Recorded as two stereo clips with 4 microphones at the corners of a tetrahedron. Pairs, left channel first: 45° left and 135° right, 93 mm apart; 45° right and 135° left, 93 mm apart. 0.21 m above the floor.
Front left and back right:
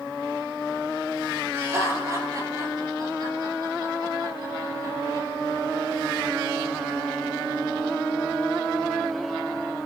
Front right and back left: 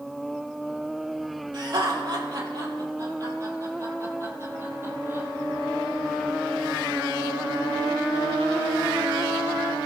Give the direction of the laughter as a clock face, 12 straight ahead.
6 o'clock.